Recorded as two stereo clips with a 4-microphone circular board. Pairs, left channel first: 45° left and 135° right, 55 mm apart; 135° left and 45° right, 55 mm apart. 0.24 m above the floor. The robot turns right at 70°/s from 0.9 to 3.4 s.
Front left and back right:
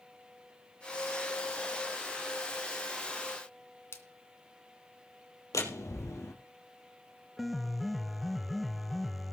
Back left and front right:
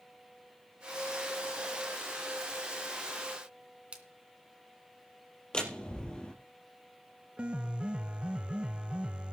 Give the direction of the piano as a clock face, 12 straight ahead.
2 o'clock.